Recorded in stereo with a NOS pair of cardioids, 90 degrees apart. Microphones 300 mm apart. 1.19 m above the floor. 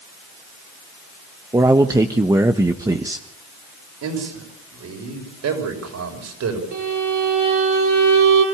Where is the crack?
I don't hear a crack.